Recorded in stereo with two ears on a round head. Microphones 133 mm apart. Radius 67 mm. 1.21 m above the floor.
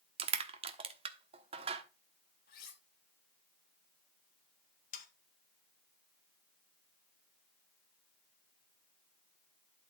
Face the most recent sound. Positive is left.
turn(degrees=60)  # may be behind; listen again after turning